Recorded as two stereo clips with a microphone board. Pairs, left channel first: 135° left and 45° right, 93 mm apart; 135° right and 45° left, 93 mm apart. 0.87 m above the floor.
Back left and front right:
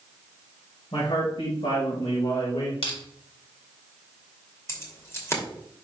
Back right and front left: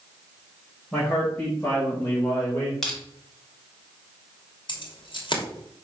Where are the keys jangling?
165° right, 2.5 m.